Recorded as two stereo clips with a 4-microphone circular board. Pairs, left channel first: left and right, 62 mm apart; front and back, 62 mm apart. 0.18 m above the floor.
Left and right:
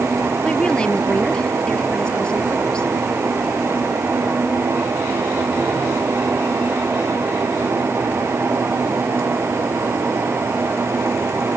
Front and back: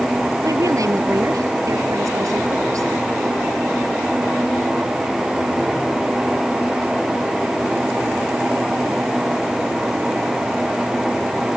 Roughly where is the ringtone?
No ringtone in this recording.